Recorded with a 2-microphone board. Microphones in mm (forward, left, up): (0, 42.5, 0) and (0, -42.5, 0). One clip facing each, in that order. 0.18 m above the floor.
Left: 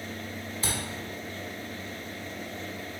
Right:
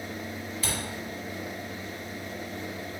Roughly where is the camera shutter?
Left.